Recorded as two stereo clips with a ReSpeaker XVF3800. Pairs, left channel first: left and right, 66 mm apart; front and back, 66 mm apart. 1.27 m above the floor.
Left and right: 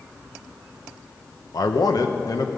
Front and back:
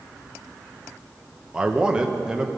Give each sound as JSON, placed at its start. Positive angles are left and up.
{"t": 1.5, "sound": "a man speaking", "azimuth_deg": 105, "distance_m": 1.0}